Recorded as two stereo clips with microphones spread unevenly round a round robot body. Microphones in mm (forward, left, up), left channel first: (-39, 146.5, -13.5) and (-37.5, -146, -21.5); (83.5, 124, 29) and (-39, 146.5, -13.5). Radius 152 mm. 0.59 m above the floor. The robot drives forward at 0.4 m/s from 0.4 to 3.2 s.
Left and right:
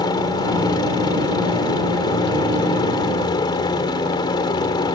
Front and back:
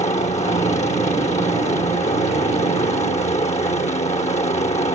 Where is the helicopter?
15° left; by 5.0 s 20° left.